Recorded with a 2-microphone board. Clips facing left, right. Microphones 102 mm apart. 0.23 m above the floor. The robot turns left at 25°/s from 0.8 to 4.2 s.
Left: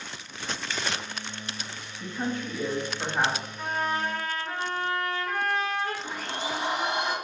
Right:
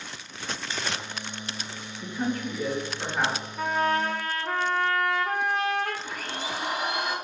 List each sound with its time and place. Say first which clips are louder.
0.7 s a finger snap: even; 15° right (ahead or behind), 1.0 m
2.0 s a woman speaking: right 2 dB; 25° left (ahead or behind), 1.0 m; by 3.5 s 15° left (ahead or behind), 1.0 m
3.6 s a trumpet: right 5 dB; 65° right (ahead or behind), 0.8 m; by 5.9 s 60° right (ahead or behind), 0.8 m
6.0 s a blender: left 1 dB; 25° left (ahead or behind), 1.1 m